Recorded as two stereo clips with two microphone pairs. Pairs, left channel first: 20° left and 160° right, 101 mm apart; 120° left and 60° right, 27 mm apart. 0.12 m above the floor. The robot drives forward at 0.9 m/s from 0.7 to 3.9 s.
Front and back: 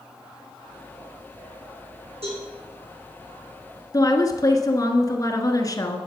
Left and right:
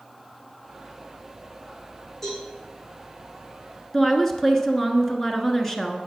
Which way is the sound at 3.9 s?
50° left.